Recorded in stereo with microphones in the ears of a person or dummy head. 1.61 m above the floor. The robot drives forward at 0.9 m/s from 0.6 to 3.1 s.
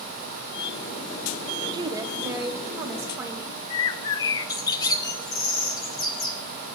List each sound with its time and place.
1.7 s a woman speaking: 20° right (ahead or behind), 1.0 m; by 3.6 s 10° right (ahead or behind), 2 m
3.7 s a bird: 25° left (ahead or behind), 0.7 m